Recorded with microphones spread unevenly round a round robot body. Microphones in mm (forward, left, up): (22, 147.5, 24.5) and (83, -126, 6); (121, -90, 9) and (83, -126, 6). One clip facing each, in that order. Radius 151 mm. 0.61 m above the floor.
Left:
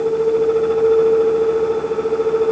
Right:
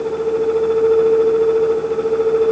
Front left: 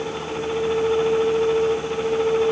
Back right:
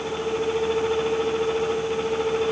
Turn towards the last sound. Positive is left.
No sound to turn to.